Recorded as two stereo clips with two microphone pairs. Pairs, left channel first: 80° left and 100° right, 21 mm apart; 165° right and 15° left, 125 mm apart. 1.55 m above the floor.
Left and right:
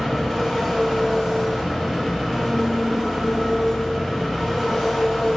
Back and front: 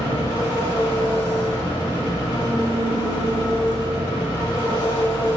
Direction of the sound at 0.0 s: 165° right.